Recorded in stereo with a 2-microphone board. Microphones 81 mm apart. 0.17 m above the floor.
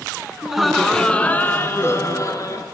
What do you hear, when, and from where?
0.4 s laughter: 10° right (ahead or behind), 1.5 m; by 2.6 s 50° left (ahead or behind), 2 m